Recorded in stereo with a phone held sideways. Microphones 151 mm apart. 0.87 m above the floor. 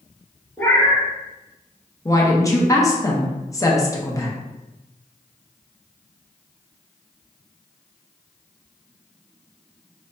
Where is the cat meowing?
15° left (ahead or behind), 1.0 m.